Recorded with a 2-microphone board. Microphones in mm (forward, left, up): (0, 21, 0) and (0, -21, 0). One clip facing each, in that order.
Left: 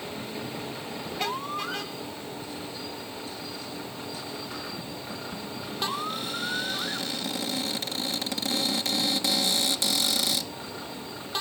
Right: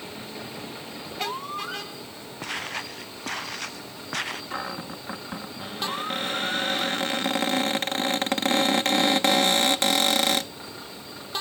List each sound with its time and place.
2.4 s footsteps: 80° right
4.5 s a cupboard door: 55° right (ahead or behind)